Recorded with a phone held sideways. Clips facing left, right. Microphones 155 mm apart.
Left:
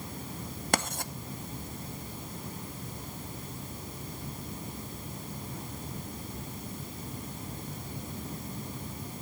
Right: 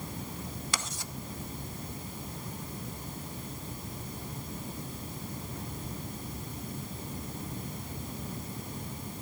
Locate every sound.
0.7 s writing: 55° left (ahead or behind), 0.8 m